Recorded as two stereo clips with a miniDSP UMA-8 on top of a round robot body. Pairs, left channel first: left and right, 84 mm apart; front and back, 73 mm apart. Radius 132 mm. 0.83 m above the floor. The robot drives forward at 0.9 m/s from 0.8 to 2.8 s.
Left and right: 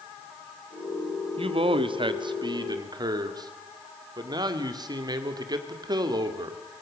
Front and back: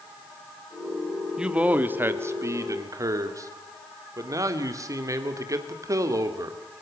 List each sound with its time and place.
1.4 s a man speaking: 100° right, 1.8 m; by 6.6 s 135° right, 2.5 m